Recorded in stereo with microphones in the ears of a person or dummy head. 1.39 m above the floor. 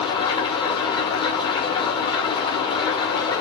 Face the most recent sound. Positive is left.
turn(degrees=25)  # may be behind; listen again after turning